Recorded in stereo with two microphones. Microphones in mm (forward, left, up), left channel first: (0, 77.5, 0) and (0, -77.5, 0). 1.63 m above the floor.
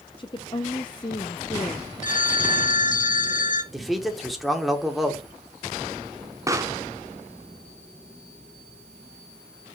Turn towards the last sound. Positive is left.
turn(degrees=-20)  # may be behind; listen again after turning